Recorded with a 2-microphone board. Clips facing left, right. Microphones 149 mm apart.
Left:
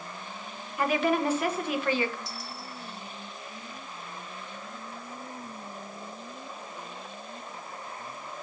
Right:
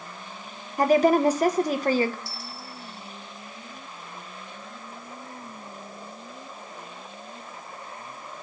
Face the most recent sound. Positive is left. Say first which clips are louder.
# even
turn(degrees=20)  # may be behind; listen again after turning